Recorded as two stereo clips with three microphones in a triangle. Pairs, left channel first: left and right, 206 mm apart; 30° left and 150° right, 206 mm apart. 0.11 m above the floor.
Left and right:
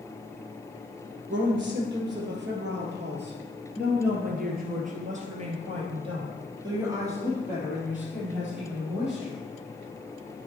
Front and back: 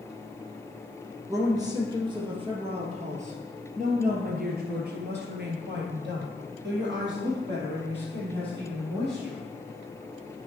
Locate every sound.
1.3 s a woman speaking: 75° right, 3 m; by 9.4 s straight behind, 4 m